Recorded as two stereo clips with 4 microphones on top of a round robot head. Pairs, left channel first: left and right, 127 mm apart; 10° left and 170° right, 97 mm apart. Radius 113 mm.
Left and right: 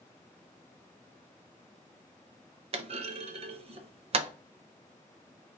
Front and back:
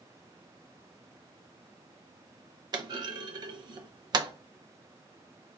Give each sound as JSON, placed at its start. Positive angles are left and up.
{"t": 2.7, "sound": "a clunk", "azimuth_deg": -130, "distance_m": 0.5}